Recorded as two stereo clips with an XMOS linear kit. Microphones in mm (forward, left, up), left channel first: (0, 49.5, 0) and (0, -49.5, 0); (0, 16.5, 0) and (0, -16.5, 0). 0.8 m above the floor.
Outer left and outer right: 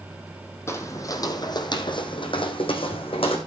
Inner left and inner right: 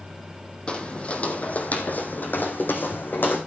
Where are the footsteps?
25° left (ahead or behind), 1.9 m; by 3.4 s 70° left (ahead or behind), 3 m.